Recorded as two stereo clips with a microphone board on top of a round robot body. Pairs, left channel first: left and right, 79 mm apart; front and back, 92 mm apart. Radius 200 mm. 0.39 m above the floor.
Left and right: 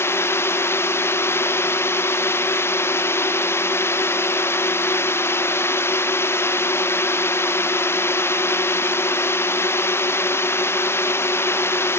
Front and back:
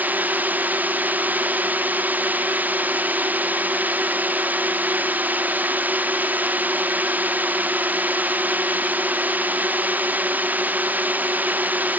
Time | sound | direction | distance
0.0 | a drone | 120° left | ?